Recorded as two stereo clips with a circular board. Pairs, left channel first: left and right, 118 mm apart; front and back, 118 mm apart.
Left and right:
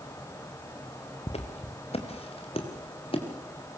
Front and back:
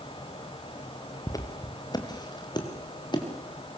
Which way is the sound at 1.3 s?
60° left.